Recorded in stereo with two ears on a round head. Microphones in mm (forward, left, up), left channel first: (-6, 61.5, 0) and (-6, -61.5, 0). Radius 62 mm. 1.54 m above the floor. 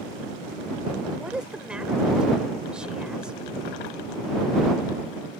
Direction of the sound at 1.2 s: 5° right (ahead or behind).